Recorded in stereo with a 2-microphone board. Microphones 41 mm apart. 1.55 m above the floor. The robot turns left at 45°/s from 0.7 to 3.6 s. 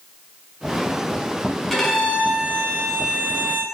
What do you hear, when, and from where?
1.7 s a violin: 5° left, 0.6 m; by 3.6 s 80° right, 0.6 m